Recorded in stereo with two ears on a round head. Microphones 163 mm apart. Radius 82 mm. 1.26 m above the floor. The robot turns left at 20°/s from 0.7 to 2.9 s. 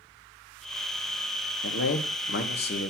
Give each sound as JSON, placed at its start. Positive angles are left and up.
{"t": 1.6, "sound": "a man speaking", "side_deg": 75, "distance_m": 1.0}